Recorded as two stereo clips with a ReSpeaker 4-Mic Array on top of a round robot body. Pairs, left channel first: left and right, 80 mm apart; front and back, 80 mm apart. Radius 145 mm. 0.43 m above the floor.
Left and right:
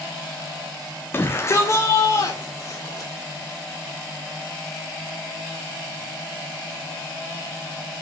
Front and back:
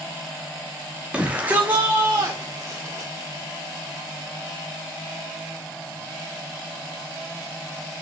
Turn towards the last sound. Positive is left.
turn(degrees=120)